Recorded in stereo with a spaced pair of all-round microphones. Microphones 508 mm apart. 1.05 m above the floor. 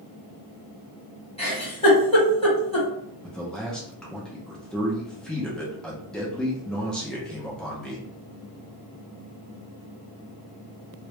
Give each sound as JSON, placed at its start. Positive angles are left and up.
{"t": 1.4, "sound": "a giggle", "side_deg": 10, "distance_m": 1.4}
{"t": 3.2, "sound": "a man speaking", "side_deg": 0, "distance_m": 0.6}